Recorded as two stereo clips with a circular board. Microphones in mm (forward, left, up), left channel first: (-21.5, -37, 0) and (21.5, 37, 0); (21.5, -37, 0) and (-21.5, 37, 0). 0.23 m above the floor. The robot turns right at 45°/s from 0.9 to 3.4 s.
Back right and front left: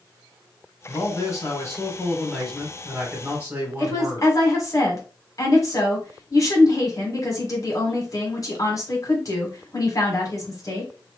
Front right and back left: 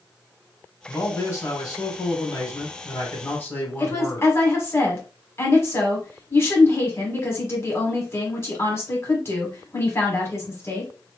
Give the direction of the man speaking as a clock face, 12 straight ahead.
4 o'clock.